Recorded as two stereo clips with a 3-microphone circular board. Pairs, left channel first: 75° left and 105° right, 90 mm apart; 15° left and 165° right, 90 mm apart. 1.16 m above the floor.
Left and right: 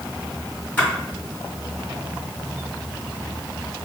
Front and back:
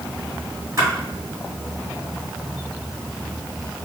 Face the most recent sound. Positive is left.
turn(degrees=145)